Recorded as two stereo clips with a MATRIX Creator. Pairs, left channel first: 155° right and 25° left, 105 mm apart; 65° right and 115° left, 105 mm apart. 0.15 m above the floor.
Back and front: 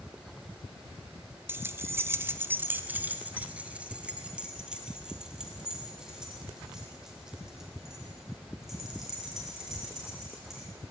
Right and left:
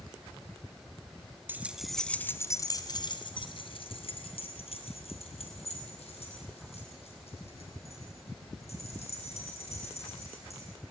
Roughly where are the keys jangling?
Ahead left.